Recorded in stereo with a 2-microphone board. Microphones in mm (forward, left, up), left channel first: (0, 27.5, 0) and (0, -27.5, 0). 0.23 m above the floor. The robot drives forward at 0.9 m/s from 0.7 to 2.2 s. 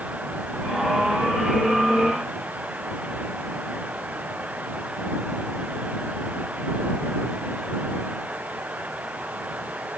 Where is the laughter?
I don't hear laughter.